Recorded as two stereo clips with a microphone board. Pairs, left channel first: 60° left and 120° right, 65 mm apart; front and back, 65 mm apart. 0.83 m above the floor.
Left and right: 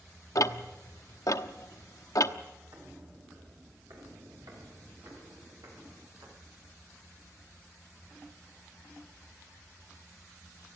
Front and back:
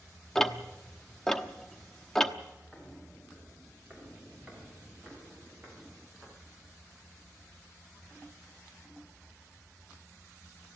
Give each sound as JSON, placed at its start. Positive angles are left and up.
{"t": 0.3, "sound": "ticking", "azimuth_deg": 85, "distance_m": 1.0}
{"t": 2.7, "sound": "footsteps", "azimuth_deg": -95, "distance_m": 6.0}